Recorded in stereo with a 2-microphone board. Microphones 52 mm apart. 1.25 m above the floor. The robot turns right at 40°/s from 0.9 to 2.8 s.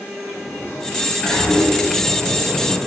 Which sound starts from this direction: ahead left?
A sliding door, at 0.3 s.